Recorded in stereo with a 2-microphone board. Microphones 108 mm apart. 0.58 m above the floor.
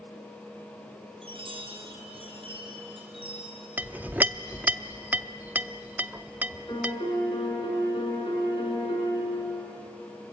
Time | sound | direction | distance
1.2 | a chime | 55° right (ahead or behind) | 4 m
3.8 | a clink | 15° right (ahead or behind) | 0.5 m
6.7 | a piano | 50° left (ahead or behind) | 5 m